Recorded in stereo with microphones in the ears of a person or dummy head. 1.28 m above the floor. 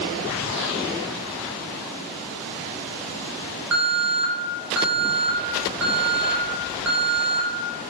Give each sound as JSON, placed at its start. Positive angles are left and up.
{"t": 3.7, "sound": "an alarm", "side_deg": -75, "distance_m": 0.9}